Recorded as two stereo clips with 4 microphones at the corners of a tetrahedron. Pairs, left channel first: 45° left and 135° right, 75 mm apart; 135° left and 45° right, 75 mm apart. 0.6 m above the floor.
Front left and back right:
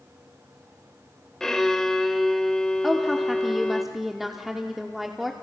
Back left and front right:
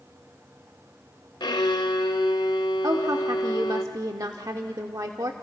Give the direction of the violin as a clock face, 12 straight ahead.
8 o'clock.